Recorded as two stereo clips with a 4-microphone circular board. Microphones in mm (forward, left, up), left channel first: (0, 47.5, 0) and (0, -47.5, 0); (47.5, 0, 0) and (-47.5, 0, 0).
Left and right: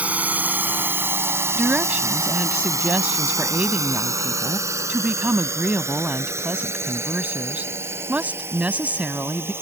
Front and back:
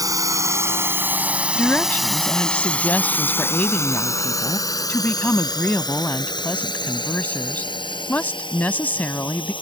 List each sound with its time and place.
0.0 s a drone: 155° right; by 9.6 s 25° right
1.6 s a woman speaking: 40° right